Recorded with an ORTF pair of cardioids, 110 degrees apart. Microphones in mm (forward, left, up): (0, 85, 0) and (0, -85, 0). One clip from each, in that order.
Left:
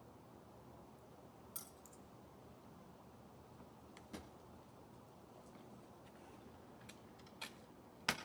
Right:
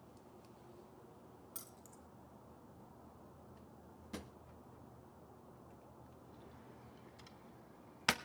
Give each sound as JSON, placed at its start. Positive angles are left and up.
{"t": 1.6, "sound": "keys jangling", "azimuth_deg": -5, "distance_m": 1.8}
{"t": 4.1, "sound": "a drawer", "azimuth_deg": -25, "distance_m": 1.3}